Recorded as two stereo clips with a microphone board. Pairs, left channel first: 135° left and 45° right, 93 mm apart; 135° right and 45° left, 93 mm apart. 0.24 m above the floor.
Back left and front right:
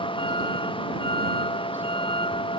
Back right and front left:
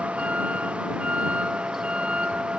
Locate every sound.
0.0 s a vehicle: 120° left; by 2.6 s 125° left